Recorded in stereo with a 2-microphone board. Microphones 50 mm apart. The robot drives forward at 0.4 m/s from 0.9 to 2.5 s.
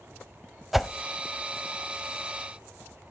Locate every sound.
0.7 s a whoosh: centre (ahead or behind), 0.6 m